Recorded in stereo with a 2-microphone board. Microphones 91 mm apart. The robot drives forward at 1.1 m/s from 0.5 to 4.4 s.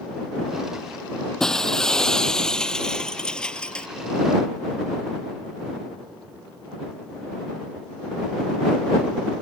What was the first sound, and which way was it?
Breaking glass, 5° left (ahead or behind).